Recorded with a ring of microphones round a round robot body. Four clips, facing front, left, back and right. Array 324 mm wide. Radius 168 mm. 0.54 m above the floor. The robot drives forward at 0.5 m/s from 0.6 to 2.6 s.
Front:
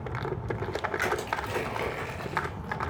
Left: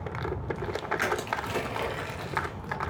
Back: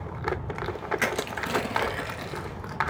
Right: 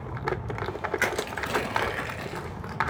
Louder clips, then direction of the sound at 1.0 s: Even, even; 145° right.